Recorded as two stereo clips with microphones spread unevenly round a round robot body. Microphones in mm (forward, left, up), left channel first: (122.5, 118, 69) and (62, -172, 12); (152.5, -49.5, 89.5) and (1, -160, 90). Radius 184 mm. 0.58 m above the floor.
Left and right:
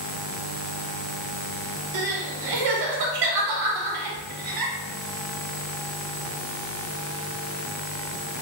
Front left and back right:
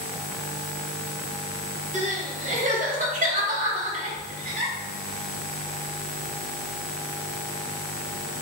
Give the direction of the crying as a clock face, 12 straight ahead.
3 o'clock.